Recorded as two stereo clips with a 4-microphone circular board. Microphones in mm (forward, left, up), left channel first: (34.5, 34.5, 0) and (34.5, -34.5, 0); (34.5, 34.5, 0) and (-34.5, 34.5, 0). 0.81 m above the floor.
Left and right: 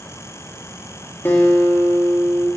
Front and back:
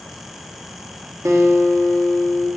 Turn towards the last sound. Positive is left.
turn(degrees=145)